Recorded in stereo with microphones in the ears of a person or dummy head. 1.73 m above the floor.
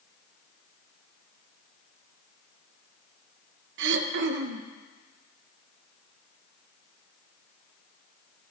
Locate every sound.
3.8 s throat clearing: 65° right (ahead or behind), 0.6 m